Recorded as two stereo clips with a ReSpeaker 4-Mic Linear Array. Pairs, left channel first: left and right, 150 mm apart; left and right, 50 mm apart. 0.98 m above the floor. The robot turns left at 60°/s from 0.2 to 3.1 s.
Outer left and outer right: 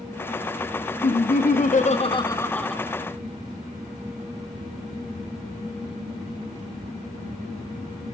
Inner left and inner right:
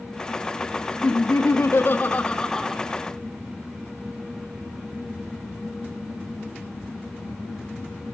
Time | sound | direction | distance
1.0 | laughter | 105° left | 1.5 m